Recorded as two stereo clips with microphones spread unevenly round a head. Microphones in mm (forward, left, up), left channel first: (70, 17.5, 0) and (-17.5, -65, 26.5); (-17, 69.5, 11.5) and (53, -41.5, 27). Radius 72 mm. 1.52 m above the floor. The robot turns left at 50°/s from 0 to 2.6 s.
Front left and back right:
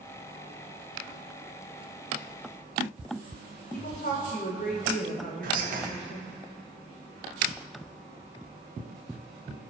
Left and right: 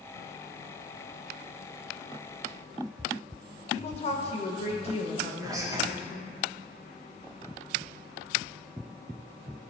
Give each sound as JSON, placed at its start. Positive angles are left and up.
{"t": 3.7, "sound": "a woman speaking", "azimuth_deg": 80, "distance_m": 1.6}
{"t": 5.4, "sound": "whispering", "azimuth_deg": -130, "distance_m": 1.4}